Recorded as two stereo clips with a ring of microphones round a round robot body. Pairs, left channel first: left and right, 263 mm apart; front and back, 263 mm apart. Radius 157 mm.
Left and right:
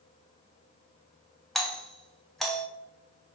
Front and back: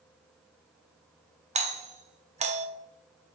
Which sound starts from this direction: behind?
A doorbell, at 1.6 s.